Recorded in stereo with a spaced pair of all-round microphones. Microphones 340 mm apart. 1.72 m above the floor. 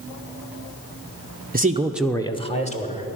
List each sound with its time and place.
1.5 s a man speaking: 25° right (ahead or behind), 0.7 m; by 3.2 s 20° left (ahead or behind), 2 m